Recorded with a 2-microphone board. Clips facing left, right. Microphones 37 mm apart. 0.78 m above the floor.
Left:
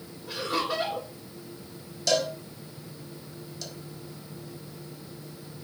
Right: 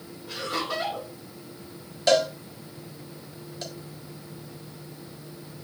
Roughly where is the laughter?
Centre.